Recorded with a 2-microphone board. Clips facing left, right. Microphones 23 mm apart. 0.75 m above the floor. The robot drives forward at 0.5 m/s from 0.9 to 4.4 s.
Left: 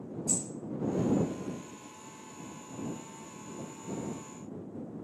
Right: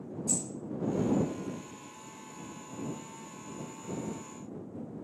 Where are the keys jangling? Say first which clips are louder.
Even; 15° left (ahead or behind), 1.4 m.